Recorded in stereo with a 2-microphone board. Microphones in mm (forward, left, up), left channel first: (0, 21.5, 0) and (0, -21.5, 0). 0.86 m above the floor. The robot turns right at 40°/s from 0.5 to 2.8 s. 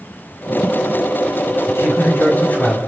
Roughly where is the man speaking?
Left.